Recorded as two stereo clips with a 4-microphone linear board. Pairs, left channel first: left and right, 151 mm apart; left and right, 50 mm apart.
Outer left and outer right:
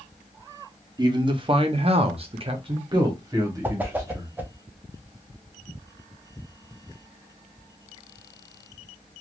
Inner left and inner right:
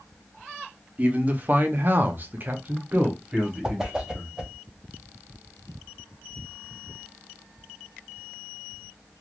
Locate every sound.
1.0 s a man speaking: 30° right (ahead or behind), 0.8 m; by 4.3 s 20° right (ahead or behind), 1.4 m
3.6 s a whoosh: 10° right (ahead or behind), 0.5 m